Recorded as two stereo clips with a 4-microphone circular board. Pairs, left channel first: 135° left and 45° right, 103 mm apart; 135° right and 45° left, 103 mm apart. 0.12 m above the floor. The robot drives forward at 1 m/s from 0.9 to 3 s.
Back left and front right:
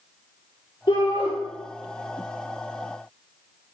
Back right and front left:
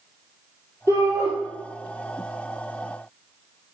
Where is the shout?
100° left, 3 m; by 1.3 s 110° left, 3 m.